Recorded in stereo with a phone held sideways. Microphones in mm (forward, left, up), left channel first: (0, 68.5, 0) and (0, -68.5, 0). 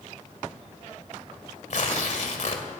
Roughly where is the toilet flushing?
I don't hear a toilet flushing.